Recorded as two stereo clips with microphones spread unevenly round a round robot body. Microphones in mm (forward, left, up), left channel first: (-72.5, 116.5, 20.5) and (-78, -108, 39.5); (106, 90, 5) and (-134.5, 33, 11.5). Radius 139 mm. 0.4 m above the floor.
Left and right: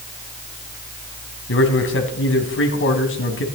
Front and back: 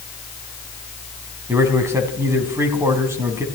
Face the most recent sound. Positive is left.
turn(degrees=115)